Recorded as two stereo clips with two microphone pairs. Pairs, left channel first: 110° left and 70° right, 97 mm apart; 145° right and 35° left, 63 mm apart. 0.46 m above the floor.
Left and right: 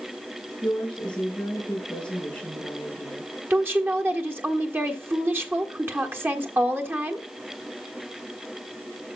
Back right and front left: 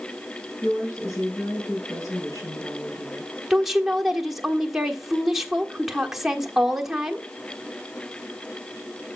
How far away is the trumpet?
I don't hear a trumpet.